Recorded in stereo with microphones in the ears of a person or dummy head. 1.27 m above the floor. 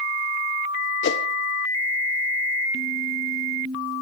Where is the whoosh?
60° left (ahead or behind), 0.6 m.